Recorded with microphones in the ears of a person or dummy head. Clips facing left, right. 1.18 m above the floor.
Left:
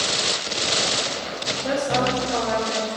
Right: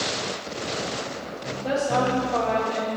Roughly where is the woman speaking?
Centre.